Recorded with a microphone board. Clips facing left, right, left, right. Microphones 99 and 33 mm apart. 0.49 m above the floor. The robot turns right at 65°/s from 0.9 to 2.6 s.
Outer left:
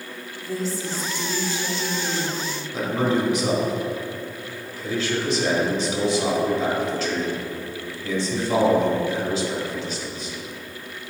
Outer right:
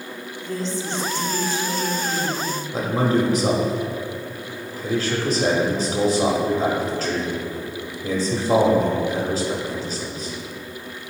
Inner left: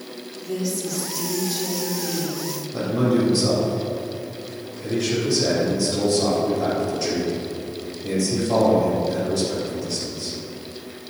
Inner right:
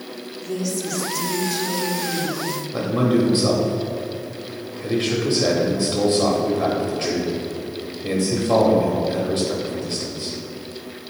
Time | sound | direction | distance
0.4 | a woman speaking | 5° left (ahead or behind) | 1.4 m
2.7 | a man speaking | 45° right (ahead or behind) | 1.8 m